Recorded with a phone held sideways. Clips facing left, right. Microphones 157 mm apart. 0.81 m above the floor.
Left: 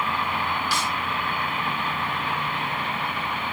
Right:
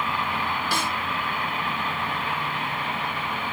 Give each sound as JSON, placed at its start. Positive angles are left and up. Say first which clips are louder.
{"t": 0.7, "sound": "a snare drum", "louder": "even", "side_deg": -60}